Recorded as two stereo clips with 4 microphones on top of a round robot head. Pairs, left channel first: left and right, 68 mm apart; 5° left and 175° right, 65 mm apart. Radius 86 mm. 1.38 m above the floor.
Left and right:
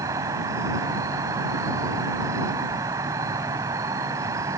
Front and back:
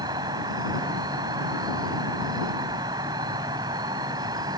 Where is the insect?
140° right.